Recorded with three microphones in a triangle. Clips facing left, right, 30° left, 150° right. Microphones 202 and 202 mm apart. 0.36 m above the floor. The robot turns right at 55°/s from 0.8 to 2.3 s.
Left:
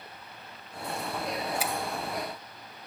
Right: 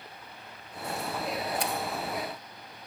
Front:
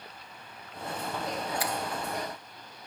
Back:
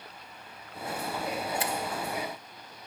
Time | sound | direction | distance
1.6 | a finger snap | 170° left | 0.7 m